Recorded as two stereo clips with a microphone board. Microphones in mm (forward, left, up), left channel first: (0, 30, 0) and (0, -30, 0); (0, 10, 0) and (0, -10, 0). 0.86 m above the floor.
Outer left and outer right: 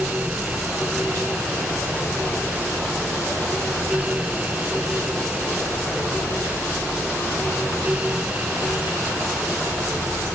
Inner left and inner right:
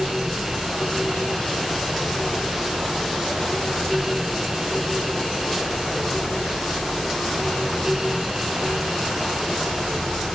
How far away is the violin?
I don't hear a violin.